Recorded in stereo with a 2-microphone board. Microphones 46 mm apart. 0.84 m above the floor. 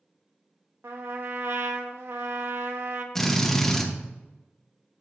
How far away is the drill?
About 1.3 m.